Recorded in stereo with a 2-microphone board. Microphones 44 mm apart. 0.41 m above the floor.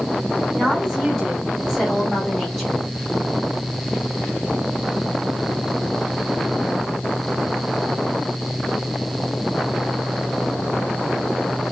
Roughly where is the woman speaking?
Centre.